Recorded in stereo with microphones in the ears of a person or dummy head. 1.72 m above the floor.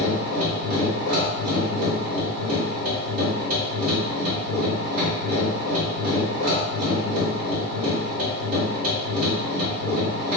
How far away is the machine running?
About 1.3 m.